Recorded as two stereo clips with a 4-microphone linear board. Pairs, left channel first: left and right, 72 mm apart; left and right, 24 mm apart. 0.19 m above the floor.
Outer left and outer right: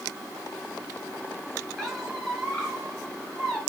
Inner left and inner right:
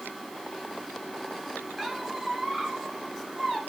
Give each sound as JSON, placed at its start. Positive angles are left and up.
{"t": 1.8, "sound": "a squeak", "side_deg": 10, "distance_m": 1.6}